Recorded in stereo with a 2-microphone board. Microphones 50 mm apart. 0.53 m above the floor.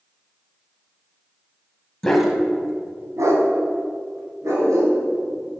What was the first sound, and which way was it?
A dog barking, 10° left (ahead or behind).